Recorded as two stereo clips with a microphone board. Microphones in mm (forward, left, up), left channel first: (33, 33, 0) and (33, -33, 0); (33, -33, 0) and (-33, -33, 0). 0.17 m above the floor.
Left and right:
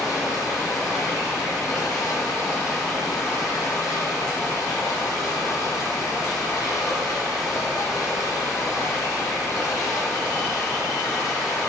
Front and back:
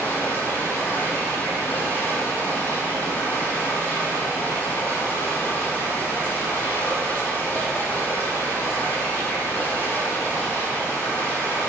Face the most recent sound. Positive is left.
turn(degrees=60)